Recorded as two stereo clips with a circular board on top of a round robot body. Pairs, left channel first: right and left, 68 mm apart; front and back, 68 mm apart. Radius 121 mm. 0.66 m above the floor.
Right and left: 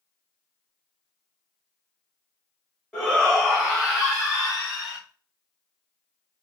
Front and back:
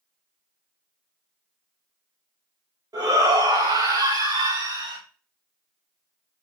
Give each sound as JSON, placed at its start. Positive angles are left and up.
{"t": 2.9, "sound": "a shout", "azimuth_deg": -170, "distance_m": 4.5}